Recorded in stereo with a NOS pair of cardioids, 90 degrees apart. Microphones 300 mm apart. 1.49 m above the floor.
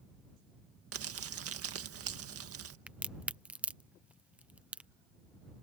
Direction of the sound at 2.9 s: 5° right.